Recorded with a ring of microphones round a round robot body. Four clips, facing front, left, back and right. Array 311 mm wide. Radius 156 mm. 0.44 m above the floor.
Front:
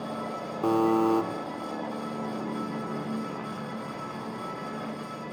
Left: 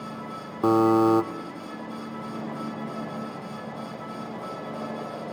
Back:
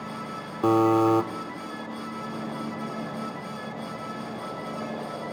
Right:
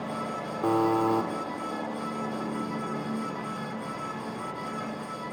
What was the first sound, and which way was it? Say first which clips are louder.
A buzzer: left 5 dB, back 3 dB; 125° left.